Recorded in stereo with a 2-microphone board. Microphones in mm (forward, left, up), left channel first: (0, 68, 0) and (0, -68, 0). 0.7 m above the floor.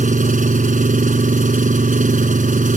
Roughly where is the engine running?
Right.